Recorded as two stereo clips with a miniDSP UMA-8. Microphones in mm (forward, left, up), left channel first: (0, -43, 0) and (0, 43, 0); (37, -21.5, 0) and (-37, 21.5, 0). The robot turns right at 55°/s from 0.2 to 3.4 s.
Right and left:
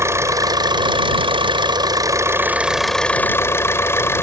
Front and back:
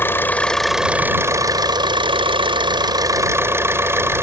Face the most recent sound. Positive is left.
turn(degrees=-150)